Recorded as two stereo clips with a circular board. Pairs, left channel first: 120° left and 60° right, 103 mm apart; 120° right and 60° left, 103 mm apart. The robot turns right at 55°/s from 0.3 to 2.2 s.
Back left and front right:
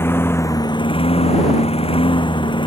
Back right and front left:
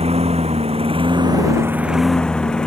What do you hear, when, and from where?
0.0 s a lawn mower: 55° left; by 2.7 s 160° left